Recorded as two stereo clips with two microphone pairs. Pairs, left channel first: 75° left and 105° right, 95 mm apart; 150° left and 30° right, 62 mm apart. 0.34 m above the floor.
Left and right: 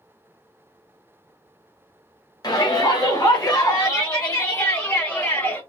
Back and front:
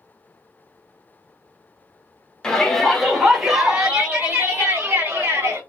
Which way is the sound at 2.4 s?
75° left.